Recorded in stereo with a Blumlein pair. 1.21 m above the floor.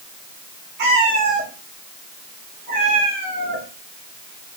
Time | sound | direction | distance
0.8 | a cat meowing | 45° right | 1.7 m